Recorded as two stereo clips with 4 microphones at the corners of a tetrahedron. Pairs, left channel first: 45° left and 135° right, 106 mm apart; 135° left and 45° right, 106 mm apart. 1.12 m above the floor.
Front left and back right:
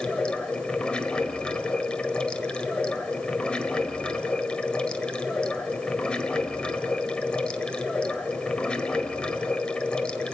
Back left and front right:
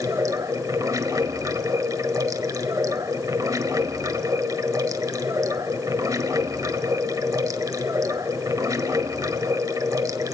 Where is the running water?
30° right, 1.0 m.